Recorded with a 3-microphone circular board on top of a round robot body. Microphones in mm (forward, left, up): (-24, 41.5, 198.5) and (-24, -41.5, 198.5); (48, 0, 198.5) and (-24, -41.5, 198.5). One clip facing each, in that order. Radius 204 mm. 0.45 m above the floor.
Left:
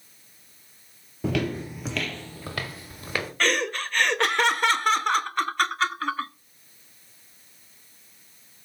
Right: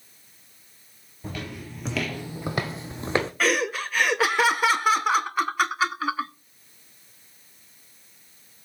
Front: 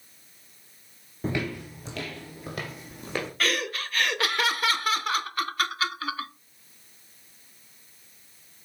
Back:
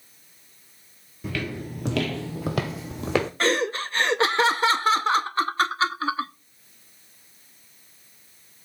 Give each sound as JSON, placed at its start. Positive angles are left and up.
{"t": 1.2, "sound": "footsteps", "azimuth_deg": 85, "distance_m": 0.5}
{"t": 3.4, "sound": "laughter", "azimuth_deg": -170, "distance_m": 1.0}